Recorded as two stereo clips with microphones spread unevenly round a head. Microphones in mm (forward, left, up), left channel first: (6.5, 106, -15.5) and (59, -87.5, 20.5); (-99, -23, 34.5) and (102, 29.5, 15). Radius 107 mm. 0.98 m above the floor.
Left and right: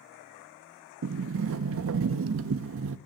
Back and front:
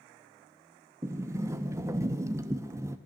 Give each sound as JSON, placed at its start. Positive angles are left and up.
{"t": 1.0, "sound": "a sliding door", "azimuth_deg": -65, "distance_m": 0.6}